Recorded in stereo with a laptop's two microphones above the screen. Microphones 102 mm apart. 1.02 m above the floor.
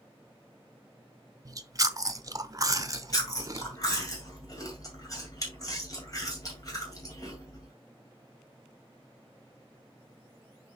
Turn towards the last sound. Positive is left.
turn(degrees=35)  # may be behind; listen again after turning